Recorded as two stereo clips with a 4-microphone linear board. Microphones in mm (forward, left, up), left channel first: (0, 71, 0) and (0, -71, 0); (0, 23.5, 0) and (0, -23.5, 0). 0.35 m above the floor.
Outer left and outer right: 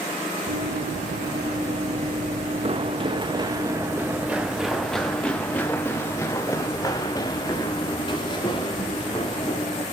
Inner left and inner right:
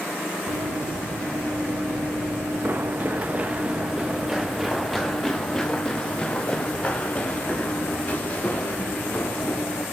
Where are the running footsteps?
80° right, 2.5 m; by 9.8 s 40° left (ahead or behind), 4.5 m.